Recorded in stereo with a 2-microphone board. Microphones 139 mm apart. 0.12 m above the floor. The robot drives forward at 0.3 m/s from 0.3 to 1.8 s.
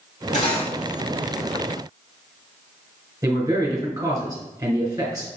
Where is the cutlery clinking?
55° left (ahead or behind), 1.9 m.